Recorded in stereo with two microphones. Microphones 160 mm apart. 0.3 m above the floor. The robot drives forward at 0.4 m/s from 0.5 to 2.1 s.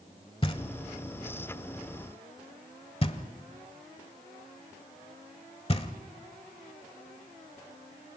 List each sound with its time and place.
0.4 s knocking: 35° left (ahead or behind), 1.2 m